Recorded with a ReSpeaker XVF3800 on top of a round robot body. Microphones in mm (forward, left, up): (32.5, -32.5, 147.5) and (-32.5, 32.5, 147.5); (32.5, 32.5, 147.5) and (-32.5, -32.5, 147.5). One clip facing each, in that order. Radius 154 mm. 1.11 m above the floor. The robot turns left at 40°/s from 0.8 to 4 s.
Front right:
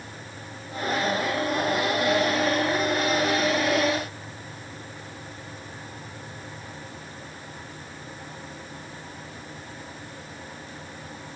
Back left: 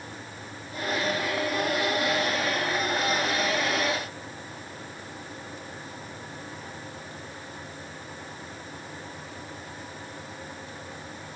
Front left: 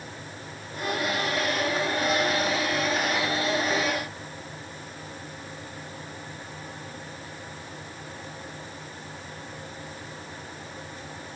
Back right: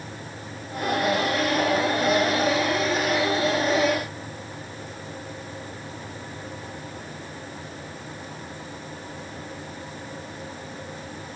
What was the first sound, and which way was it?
Only background noise.